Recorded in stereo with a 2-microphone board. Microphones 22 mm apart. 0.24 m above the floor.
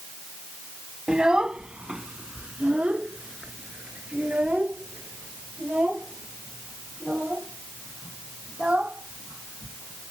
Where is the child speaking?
40° right (ahead or behind); by 10.1 s 80° right.